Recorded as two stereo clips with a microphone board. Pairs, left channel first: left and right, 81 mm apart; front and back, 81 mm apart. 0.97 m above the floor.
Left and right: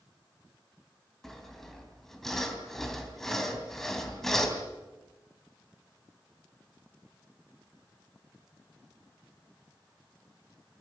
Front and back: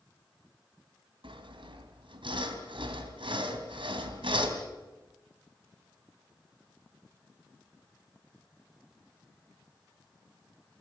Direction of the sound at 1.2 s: 175° left.